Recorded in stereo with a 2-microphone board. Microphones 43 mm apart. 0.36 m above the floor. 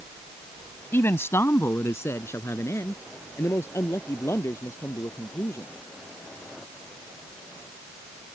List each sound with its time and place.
0.9 s a man speaking: 60° left (ahead or behind); by 5.7 s 80° left